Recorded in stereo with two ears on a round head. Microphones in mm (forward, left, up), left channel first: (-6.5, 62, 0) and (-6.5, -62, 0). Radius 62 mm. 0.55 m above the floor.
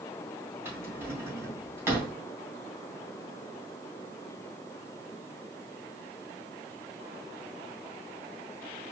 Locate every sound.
0.7 s a drawer: 20° right (ahead or behind), 3 m